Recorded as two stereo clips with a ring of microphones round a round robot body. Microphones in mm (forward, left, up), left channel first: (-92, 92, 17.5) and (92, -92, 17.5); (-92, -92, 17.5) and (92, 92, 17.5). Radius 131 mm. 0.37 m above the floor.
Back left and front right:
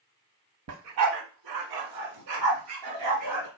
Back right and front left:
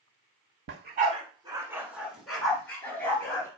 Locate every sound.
0.7 s a dog barking: 5° right, 0.6 m; by 3.5 s 55° right, 1.8 m